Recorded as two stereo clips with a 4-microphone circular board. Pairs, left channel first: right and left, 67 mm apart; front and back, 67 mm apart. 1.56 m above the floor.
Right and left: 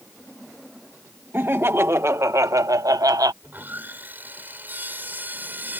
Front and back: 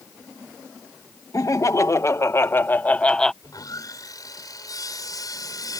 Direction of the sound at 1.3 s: 35° left.